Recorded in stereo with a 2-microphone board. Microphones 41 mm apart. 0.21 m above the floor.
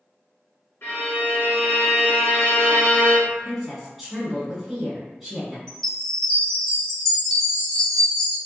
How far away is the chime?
About 1.3 m.